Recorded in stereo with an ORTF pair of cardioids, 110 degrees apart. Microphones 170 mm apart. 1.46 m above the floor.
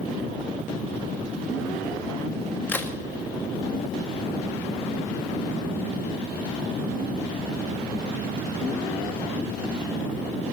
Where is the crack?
10° left, 2 m.